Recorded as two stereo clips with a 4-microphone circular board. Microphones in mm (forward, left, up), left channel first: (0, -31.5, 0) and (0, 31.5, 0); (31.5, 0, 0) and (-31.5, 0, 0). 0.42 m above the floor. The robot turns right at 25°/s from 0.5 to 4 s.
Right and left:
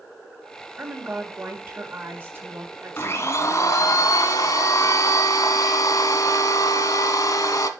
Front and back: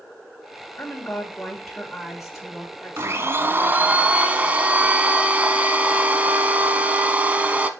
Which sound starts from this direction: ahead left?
A woman speaking, at 0.8 s.